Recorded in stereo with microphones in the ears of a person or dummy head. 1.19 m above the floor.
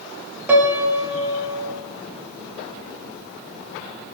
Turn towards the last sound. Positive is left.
turn(degrees=-5)  # may be behind; listen again after turning